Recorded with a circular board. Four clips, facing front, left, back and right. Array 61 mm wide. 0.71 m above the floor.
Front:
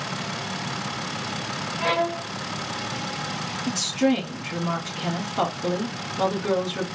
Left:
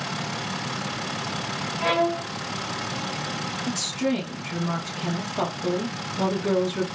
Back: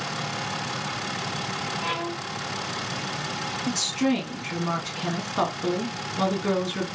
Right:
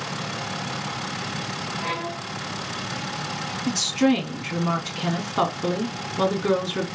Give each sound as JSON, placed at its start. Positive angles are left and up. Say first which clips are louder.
{"t": 1.8, "sound": "a violin", "louder": "left 10 dB, front 10 dB", "azimuth_deg": 35, "distance_m": 1.3}
{"t": 3.7, "sound": "a woman speaking", "louder": "right 6 dB, front 3 dB", "azimuth_deg": -100, "distance_m": 1.6}